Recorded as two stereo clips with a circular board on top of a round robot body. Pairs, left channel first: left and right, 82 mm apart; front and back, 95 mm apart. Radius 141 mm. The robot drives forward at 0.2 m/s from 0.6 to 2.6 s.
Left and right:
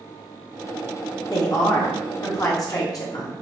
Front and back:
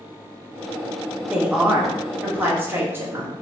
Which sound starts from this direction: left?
A woman speaking, at 1.3 s.